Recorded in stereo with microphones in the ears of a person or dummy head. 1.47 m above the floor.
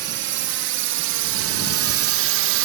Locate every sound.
0.0 s a drone: 55° right (ahead or behind); by 2.7 s 60° right (ahead or behind)